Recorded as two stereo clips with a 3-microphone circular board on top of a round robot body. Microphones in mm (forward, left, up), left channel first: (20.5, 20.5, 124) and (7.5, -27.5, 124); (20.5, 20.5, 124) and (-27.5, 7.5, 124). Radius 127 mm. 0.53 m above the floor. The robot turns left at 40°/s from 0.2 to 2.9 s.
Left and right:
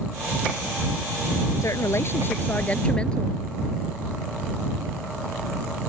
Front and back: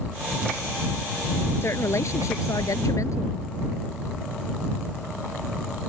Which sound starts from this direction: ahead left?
A woman speaking, at 1.6 s.